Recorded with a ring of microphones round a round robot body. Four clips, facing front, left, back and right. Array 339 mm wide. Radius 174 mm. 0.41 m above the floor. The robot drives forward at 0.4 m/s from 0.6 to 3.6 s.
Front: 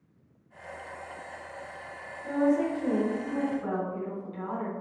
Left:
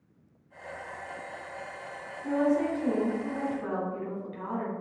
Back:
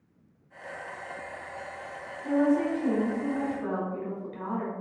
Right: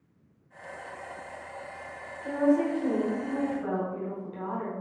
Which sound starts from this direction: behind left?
A woman speaking, at 2.2 s.